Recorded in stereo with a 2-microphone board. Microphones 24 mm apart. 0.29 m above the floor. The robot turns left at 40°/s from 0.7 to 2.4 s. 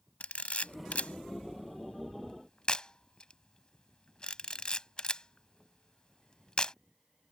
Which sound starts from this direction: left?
A camera shutter, at 0.2 s.